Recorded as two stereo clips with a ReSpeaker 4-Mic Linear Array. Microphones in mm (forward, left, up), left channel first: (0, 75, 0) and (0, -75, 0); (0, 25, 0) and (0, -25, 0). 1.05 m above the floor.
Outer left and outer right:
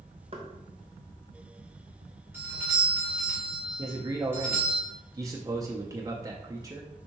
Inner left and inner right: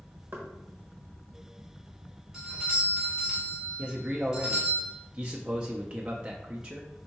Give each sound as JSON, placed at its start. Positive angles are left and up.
{"t": 0.3, "sound": "knocking", "side_deg": -40, "distance_m": 1.1}
{"t": 2.3, "sound": "a doorbell", "side_deg": -15, "distance_m": 1.7}
{"t": 3.8, "sound": "a man speaking", "side_deg": -25, "distance_m": 0.6}